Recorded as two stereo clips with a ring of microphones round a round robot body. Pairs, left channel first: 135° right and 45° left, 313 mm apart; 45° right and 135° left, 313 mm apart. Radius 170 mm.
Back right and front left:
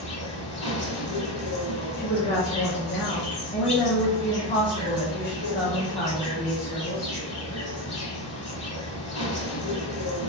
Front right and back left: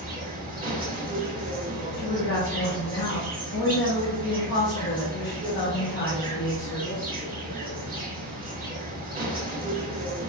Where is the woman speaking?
85° right, 0.8 m.